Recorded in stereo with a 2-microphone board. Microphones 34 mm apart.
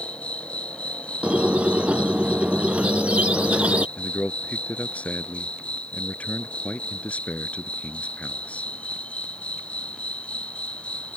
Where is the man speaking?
40° left (ahead or behind).